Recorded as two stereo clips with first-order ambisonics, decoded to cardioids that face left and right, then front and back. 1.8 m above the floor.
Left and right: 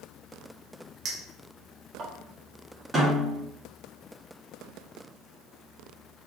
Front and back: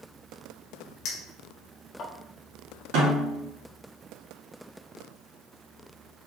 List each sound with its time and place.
1.1 s a clink: 35° right, 1.0 m
2.9 s a snare drum: 170° right, 2.0 m